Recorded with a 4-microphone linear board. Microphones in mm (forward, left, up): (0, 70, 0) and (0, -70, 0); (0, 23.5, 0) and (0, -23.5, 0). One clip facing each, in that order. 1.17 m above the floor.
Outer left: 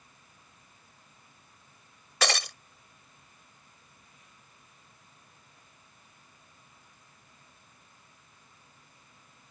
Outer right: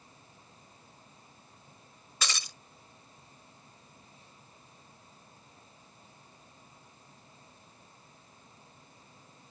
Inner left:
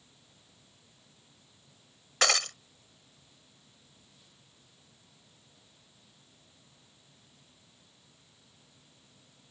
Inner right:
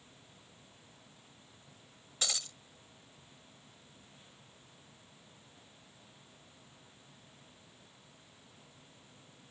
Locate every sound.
2.2 s breaking glass: 75° left (ahead or behind)